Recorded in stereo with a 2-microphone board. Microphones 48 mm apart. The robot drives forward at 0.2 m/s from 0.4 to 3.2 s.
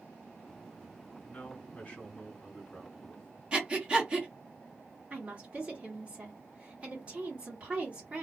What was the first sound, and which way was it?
A man speaking, 25° left (ahead or behind).